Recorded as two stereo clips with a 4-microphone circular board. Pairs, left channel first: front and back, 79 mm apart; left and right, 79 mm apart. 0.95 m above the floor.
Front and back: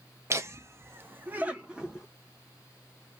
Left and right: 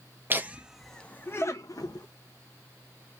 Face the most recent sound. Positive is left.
turn(degrees=100)